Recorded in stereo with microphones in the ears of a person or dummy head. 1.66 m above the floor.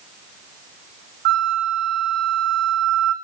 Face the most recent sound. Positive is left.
turn(degrees=-60)  # may be behind; listen again after turning